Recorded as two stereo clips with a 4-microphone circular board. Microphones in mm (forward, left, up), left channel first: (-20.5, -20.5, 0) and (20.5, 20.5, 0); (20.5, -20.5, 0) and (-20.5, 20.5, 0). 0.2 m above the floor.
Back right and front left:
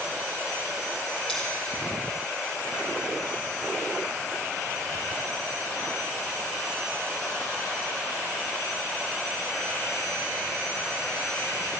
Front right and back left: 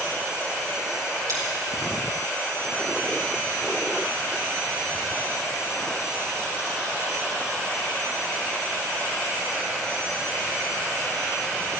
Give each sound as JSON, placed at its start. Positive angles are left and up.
{"t": 1.3, "sound": "scissors", "azimuth_deg": 140, "distance_m": 7.0}